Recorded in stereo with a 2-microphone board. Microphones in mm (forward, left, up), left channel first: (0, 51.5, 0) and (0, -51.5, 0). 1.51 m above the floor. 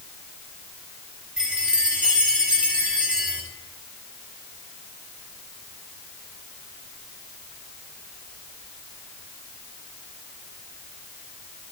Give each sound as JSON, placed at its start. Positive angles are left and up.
{"t": 1.4, "sound": "a chime", "side_deg": -5, "distance_m": 5.0}